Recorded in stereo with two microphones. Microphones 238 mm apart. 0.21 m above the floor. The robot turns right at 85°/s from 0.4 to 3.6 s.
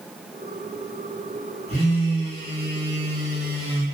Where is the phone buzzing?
150° right, 1.7 m; by 3.8 s 15° left, 1.7 m.